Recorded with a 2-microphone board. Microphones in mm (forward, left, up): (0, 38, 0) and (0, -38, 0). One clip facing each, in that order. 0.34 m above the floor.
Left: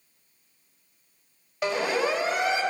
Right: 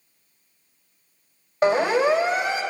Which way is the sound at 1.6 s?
35° right (ahead or behind).